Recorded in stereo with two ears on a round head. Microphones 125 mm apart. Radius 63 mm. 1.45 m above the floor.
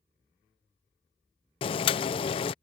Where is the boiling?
35° left (ahead or behind).